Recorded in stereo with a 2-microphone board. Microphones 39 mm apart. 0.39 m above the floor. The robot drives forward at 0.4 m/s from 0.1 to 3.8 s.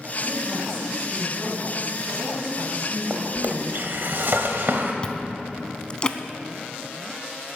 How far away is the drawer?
About 1.2 m.